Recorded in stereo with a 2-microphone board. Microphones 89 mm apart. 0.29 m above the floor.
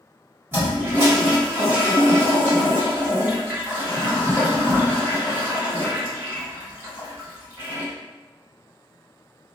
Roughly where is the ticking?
No ticking in this recording.